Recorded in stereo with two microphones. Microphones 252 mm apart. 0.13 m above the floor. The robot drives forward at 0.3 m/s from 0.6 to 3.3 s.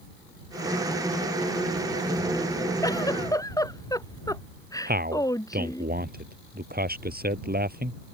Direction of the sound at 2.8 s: 15° left (ahead or behind).